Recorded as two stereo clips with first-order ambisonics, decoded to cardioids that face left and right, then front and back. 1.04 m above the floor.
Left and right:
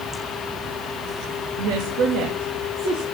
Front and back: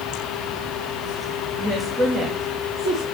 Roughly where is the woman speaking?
Right.